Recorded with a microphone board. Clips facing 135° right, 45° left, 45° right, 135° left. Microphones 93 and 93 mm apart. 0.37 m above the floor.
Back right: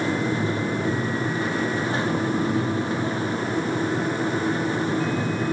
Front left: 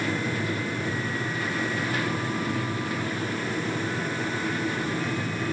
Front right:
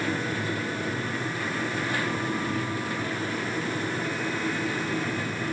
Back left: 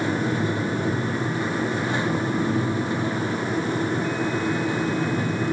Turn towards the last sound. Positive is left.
No sound to turn to.